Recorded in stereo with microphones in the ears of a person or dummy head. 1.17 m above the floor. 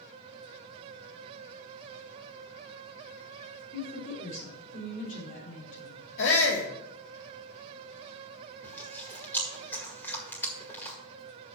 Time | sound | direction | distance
3.7 | a woman speaking | 40° left (ahead or behind) | 3.5 m
6.2 | a shout | 65° left (ahead or behind) | 1.1 m
8.6 | chewing | 10° left (ahead or behind) | 1.9 m